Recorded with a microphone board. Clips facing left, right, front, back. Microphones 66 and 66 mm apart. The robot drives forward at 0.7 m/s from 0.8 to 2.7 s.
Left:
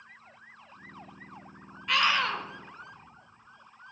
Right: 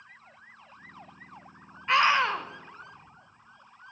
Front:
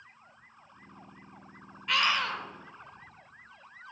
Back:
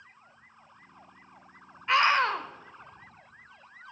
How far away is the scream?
About 1.0 m.